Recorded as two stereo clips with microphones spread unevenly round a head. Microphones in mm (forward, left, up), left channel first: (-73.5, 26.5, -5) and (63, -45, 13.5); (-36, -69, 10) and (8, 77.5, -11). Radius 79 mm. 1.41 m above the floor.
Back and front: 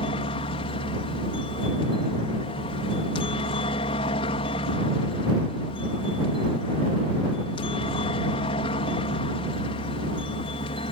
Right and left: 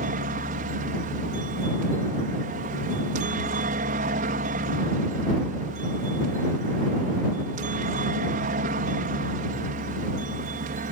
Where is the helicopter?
100° left.